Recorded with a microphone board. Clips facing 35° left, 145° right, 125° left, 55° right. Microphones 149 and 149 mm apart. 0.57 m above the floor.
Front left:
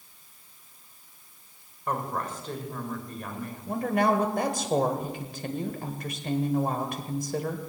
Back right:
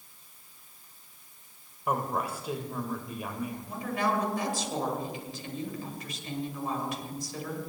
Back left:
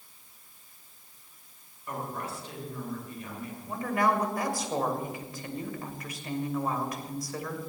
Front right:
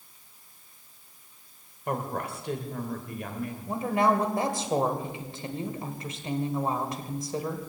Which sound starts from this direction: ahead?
A woman speaking, at 3.7 s.